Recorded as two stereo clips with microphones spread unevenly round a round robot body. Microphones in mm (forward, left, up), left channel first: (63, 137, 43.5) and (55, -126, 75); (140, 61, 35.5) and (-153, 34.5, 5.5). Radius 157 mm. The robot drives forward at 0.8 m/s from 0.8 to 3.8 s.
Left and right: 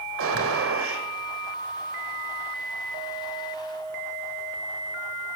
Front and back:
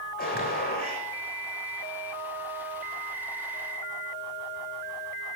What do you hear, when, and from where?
0.2 s a gunshot: 55° right, 3 m; by 1.1 s 60° right, 3 m